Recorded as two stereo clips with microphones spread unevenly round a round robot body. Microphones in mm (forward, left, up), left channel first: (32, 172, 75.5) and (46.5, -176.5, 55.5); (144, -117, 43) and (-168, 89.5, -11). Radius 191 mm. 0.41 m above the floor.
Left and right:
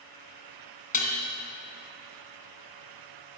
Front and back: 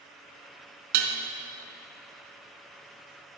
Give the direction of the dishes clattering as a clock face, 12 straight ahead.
7 o'clock.